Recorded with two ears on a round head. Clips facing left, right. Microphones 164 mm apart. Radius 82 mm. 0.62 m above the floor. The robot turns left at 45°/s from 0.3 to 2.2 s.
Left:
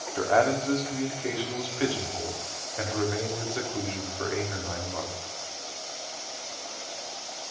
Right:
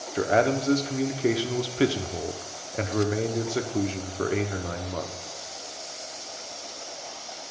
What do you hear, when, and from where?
0.1 s a man speaking: 30° right, 1.0 m; by 5.1 s 115° right, 1.0 m